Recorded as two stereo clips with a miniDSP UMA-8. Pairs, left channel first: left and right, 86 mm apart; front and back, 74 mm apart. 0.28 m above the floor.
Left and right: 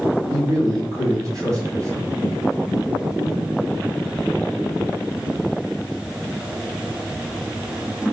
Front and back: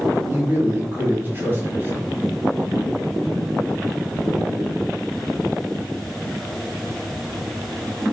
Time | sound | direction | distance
0.3 | a man speaking | 125° right | 1.7 m